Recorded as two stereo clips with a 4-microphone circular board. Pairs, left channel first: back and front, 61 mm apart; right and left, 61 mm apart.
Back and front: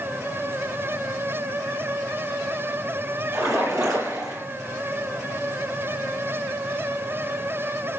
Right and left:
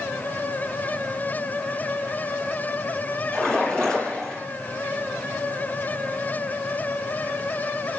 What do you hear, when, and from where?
3.3 s a splash: 10° right, 7 m